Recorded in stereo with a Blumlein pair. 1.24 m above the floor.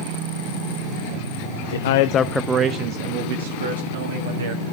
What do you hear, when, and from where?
1.7 s a man speaking: 65° left, 0.9 m; by 4.6 s 65° right, 3 m